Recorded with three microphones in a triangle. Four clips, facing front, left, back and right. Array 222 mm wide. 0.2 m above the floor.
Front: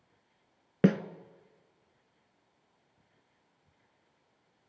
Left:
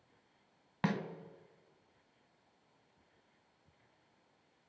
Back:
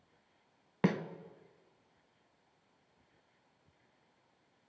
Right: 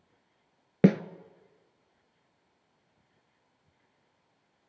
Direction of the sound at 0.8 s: 75° right.